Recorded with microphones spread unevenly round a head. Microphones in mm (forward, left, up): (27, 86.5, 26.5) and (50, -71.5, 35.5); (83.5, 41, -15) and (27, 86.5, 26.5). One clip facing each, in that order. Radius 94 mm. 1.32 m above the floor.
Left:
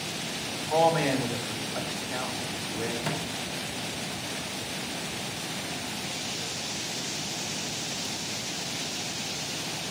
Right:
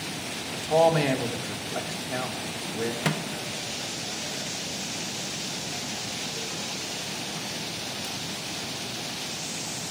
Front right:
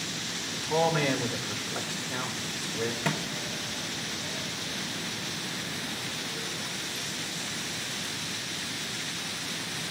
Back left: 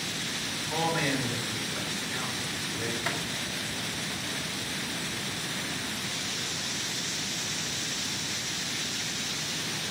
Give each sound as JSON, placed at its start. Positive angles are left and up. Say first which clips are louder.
{"t": 0.5, "sound": "a man speaking", "louder": "right 3 dB, front right 4 dB", "azimuth_deg": -35, "distance_m": 2.0}
{"t": 3.0, "sound": "a microwave", "louder": "right 3 dB, front right 1 dB", "azimuth_deg": -80, "distance_m": 0.9}